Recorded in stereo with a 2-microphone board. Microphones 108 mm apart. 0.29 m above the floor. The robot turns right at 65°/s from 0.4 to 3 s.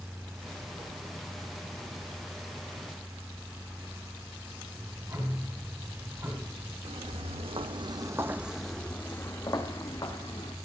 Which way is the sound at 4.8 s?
40° right (ahead or behind).